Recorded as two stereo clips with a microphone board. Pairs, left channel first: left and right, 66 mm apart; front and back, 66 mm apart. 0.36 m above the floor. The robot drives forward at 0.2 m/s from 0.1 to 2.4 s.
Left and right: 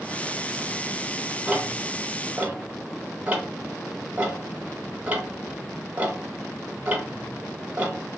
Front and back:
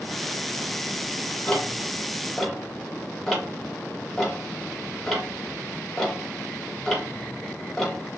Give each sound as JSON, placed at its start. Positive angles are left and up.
{"t": 1.5, "sound": "ticking", "azimuth_deg": -45, "distance_m": 0.6}